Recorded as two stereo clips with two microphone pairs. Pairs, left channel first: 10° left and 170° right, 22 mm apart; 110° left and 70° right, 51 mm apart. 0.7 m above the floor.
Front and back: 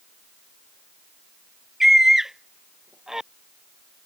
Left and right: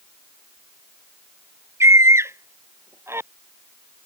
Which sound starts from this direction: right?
A scream, at 1.8 s.